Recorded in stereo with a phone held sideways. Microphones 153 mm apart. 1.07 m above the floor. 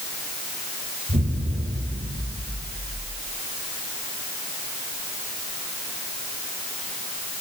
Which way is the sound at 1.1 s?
85° right.